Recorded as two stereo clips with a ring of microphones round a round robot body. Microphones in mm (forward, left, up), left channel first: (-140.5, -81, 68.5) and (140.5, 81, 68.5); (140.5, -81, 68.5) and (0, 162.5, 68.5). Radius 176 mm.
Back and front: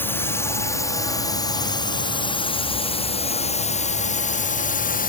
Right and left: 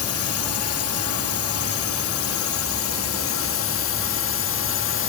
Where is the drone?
70° right; by 5.1 s 90° right.